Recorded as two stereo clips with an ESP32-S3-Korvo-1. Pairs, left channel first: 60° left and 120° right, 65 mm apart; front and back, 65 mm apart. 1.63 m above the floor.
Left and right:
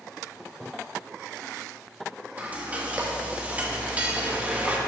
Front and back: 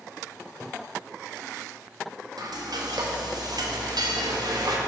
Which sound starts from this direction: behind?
Frying, at 2.4 s.